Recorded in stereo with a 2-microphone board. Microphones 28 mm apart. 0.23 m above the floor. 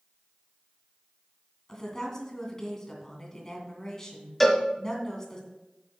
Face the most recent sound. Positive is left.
turn(degrees=5)  # may be behind; listen again after turning